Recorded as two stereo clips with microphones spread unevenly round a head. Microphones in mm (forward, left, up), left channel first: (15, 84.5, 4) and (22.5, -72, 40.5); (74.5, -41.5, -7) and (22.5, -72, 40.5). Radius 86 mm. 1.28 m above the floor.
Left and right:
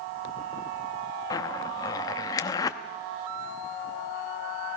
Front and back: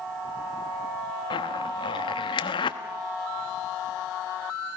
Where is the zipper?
20° left, 1.0 m.